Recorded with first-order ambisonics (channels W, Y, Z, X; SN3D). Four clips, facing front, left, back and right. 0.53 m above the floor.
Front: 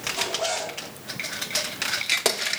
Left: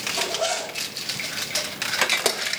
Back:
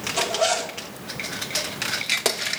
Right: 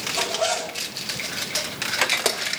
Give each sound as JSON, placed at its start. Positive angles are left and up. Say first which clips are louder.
{"t": 0.1, "sound": "a zipper", "louder": "right 2 dB, back 7 dB", "azimuth_deg": -175, "distance_m": 1.2}